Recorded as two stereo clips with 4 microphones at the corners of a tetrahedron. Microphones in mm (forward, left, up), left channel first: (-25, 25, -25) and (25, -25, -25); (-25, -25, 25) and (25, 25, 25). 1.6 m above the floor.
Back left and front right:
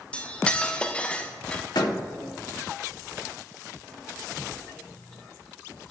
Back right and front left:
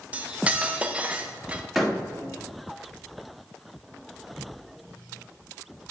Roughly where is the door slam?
Behind left.